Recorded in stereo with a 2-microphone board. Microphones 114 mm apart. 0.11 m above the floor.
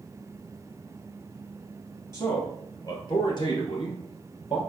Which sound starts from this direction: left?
A man speaking, at 2.1 s.